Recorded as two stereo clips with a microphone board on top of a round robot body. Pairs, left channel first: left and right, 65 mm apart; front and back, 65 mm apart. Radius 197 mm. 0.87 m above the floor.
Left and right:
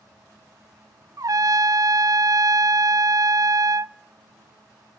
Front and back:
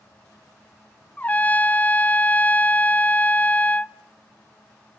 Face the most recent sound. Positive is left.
turn(degrees=-65)